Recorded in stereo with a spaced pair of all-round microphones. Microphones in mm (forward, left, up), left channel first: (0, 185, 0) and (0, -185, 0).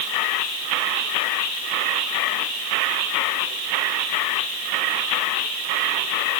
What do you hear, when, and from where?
Only background noise.